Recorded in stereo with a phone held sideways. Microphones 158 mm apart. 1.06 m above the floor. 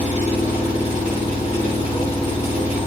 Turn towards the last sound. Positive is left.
turn(degrees=45)  # may be behind; listen again after turning